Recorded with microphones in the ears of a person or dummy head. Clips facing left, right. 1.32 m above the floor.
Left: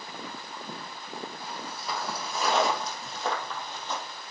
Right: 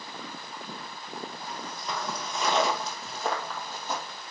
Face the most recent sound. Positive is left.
turn(degrees=-15)  # may be behind; listen again after turning